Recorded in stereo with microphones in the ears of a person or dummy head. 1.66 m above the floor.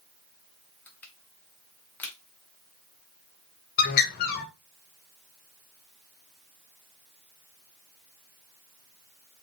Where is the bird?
55° left (ahead or behind), 1.6 m.